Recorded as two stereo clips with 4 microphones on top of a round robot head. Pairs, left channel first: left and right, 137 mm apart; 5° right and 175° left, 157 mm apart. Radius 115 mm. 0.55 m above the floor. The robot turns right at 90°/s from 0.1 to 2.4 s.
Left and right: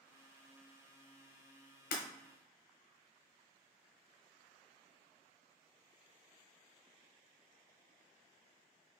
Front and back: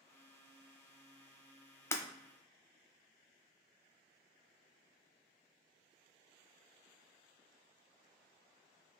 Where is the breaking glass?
70° left, 0.6 m; by 2.0 s 80° left, 0.6 m.